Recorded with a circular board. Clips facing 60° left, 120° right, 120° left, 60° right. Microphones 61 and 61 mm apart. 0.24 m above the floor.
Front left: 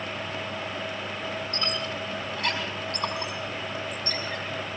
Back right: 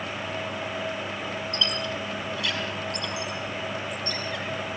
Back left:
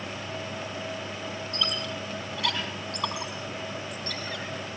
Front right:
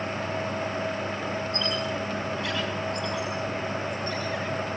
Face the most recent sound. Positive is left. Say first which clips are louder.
# back right 2 dB, front right 3 dB
turn(degrees=105)